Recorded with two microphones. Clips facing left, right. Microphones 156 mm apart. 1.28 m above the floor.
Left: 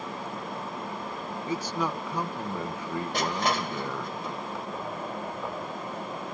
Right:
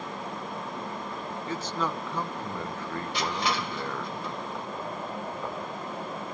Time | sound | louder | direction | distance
1.5 | a man speaking | left 2 dB | 10° left (ahead or behind) | 1.2 m
3.1 | crushing | left 2 dB | 45° left (ahead or behind) | 1.2 m